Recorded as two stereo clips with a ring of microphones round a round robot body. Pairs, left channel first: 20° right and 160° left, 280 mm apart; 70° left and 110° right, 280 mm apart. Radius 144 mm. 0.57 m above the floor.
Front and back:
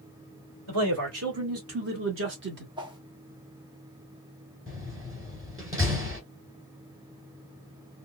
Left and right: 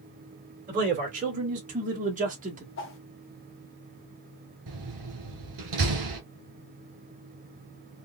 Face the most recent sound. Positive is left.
turn(degrees=-125)